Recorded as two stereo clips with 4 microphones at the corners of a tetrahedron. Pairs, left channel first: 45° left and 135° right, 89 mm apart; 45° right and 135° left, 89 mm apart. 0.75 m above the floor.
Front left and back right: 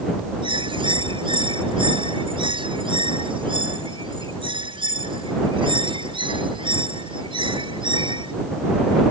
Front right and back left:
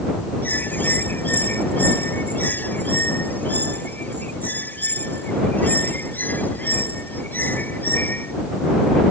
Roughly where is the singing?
I don't hear singing.